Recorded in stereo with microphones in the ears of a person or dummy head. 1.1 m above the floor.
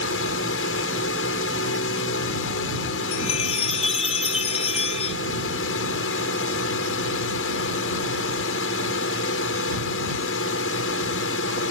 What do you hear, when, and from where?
0.0 s a drone: 70° left (ahead or behind)
3.1 s a chime: 35° left (ahead or behind)